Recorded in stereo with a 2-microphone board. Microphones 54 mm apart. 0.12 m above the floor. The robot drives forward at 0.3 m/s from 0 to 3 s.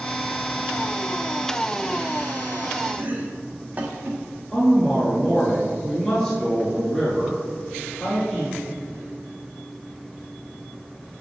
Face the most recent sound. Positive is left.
turn(degrees=15)  # may be behind; listen again after turning